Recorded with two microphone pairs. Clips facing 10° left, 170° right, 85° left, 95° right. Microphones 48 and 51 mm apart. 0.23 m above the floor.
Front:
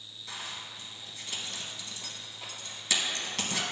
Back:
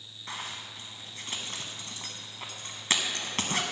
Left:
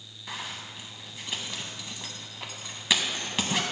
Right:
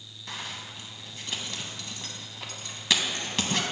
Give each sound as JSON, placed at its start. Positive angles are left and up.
{"t": 0.3, "sound": "a zipper", "azimuth_deg": 160, "distance_m": 0.9}